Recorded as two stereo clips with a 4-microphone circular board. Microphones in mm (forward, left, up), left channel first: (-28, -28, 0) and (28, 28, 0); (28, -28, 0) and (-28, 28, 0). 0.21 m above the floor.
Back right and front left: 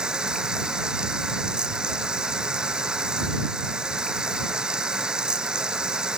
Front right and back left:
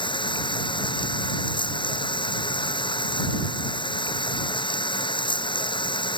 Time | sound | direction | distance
0.0 | running water | 35° right | ?